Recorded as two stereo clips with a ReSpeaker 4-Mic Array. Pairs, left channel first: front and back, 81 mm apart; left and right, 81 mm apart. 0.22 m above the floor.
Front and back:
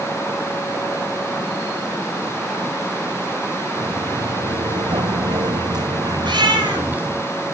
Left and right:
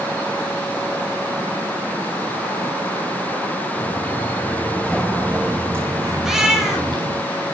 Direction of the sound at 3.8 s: 145° left.